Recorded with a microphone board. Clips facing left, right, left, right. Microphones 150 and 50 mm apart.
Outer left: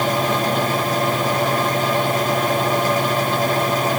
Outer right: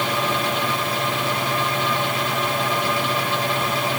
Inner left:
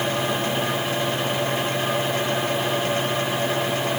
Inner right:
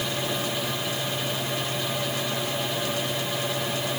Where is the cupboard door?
I don't hear a cupboard door.